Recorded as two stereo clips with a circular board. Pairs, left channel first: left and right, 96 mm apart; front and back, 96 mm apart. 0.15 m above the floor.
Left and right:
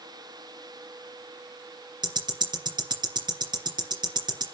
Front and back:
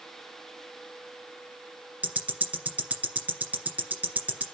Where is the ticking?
110° right, 2.5 m.